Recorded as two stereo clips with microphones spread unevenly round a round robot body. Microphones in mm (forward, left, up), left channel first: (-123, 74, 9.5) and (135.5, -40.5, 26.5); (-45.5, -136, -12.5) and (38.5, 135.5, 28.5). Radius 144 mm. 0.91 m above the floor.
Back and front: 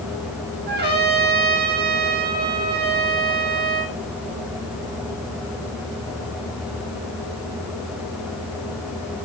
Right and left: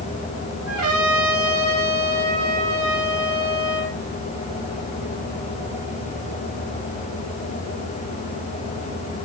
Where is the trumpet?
30° left, 7.5 m.